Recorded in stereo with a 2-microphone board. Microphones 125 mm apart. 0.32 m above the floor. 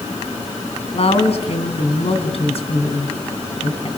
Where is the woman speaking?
55° left (ahead or behind), 3.5 m.